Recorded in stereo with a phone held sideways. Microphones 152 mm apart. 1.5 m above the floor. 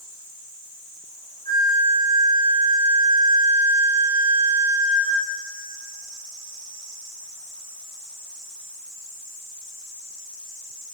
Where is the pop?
I don't hear a pop.